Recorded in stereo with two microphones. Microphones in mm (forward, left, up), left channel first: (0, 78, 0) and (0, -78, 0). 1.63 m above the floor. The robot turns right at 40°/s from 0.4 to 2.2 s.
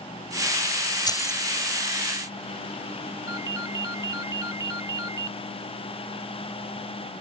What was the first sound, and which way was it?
Keys jangling, 25° left (ahead or behind).